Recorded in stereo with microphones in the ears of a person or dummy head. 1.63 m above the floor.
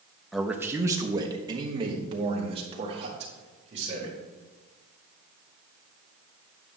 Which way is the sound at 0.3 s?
Centre (ahead or behind).